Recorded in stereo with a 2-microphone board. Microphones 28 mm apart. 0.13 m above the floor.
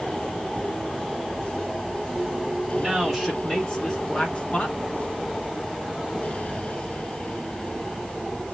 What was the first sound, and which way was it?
A man speaking, centre (ahead or behind).